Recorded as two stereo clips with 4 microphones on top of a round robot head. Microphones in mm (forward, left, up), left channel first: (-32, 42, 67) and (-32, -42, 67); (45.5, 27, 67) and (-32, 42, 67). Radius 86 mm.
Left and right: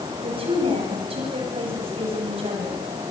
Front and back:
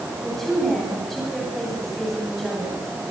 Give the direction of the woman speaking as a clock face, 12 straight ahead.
3 o'clock.